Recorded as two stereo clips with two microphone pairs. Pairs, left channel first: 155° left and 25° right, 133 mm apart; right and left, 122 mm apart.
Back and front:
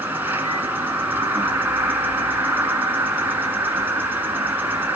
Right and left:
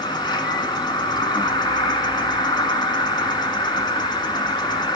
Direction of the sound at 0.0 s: 90° right.